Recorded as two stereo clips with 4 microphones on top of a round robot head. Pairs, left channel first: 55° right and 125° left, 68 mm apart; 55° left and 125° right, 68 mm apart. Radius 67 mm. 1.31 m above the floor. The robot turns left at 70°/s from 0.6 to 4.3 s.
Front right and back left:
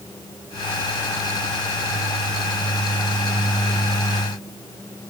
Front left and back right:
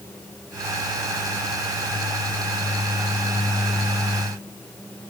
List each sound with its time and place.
Only background noise.